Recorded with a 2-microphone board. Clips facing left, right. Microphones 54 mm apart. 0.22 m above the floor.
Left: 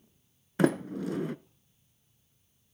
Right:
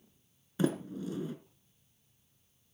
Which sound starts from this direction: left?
A sliding door, at 0.6 s.